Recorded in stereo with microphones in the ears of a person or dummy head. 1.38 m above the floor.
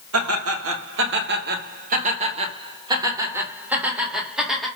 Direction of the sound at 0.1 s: 85° right.